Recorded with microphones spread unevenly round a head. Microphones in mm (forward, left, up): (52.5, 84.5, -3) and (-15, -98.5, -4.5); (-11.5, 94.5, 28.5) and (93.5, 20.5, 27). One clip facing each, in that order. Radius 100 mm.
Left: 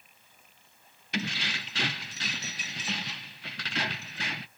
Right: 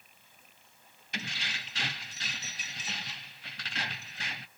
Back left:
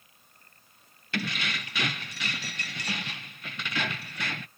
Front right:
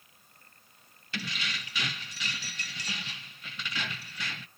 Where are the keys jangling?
105° left, 0.7 m.